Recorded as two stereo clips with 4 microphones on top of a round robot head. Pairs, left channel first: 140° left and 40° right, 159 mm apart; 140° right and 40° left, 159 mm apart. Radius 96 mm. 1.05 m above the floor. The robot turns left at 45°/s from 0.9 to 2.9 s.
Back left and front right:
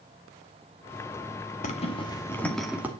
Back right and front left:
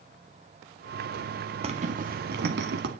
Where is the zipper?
95° left, 2.0 m; by 2.9 s 35° left, 2.0 m.